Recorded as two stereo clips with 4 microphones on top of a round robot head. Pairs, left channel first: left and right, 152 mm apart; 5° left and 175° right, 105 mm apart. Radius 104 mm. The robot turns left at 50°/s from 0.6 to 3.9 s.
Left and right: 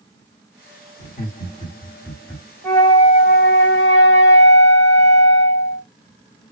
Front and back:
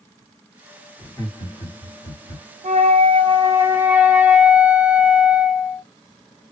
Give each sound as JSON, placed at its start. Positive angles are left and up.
{"t": 1.0, "sound": "laughter", "azimuth_deg": 65, "distance_m": 1.9}
{"t": 2.6, "sound": "a flute", "azimuth_deg": 170, "distance_m": 0.7}